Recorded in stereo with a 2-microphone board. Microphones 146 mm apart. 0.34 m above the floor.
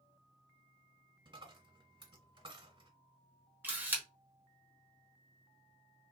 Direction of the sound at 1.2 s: 35° right (ahead or behind).